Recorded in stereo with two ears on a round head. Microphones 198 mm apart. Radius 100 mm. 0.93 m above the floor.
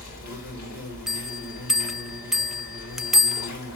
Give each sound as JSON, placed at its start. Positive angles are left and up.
{"t": 0.0, "sound": "an insect", "side_deg": 40, "distance_m": 7.5}
{"t": 1.1, "sound": "a bell", "side_deg": 0, "distance_m": 0.6}